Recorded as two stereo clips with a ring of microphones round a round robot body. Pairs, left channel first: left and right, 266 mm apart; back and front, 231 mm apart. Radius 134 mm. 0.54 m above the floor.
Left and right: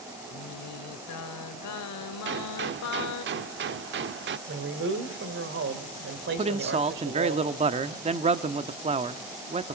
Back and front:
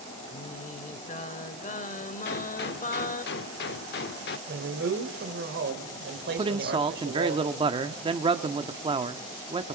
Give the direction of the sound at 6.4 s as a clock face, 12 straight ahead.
2 o'clock.